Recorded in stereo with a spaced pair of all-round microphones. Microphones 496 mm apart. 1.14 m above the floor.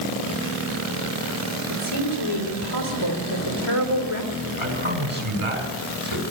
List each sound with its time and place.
1.7 s a woman speaking: 80° left, 3.5 m
4.6 s a man speaking: 75° right (ahead or behind), 5 m